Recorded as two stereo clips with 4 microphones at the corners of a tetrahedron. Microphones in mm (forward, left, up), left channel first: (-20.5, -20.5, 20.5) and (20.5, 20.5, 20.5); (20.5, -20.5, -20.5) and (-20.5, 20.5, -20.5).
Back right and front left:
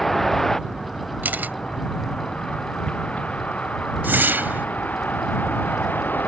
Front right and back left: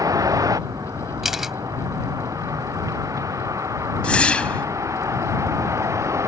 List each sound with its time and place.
0.0 s a vehicle: 140° left; by 6.3 s 170° left
1.2 s a camera shutter: 55° left
4.0 s a whoosh: 15° left